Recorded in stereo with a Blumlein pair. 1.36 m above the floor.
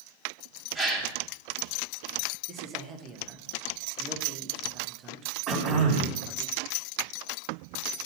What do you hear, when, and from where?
0.8 s a gasp: 5° left, 1.9 m
2.5 s a man speaking: 25° right, 1.1 m
5.5 s throat clearing: 25° right, 2 m